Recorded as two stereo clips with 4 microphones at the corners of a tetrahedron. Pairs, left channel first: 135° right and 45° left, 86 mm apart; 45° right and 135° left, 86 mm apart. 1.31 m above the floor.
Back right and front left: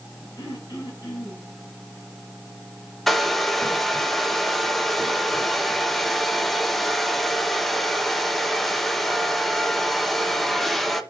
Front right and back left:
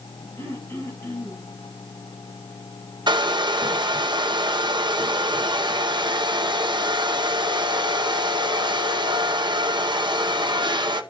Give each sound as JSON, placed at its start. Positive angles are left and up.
{"t": 0.4, "sound": "throat clearing", "azimuth_deg": -95, "distance_m": 4.0}
{"t": 3.1, "sound": "a hair dryer", "azimuth_deg": 140, "distance_m": 0.8}